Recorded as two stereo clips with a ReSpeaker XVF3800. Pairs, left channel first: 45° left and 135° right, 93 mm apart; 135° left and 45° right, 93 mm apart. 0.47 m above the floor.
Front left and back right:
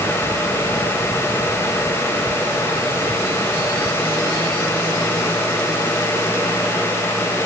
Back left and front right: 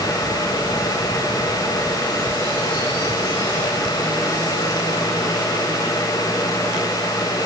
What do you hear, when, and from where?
Only background noise.